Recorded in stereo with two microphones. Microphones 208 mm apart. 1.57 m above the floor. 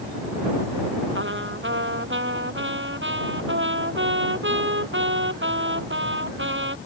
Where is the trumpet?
65° right (ahead or behind).